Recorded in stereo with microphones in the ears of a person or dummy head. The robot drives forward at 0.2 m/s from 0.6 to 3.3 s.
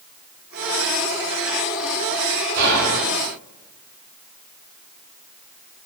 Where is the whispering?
60° right (ahead or behind), 0.9 m; by 3.0 s 65° right (ahead or behind), 0.9 m.